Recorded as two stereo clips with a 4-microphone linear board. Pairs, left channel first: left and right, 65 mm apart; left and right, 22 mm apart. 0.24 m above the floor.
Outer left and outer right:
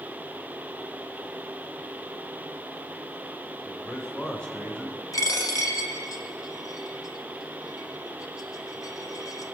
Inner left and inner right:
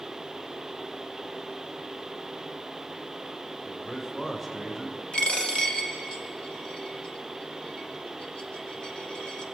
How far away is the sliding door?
I don't hear a sliding door.